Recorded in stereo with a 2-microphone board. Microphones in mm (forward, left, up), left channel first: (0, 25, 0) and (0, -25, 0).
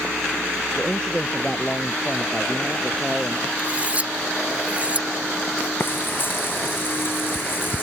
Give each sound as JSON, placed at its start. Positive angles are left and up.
{"t": 0.8, "sound": "a man speaking", "side_deg": 15}
{"t": 3.6, "sound": "cutlery clinking", "side_deg": -25}
{"t": 5.8, "sound": "frying", "side_deg": 40}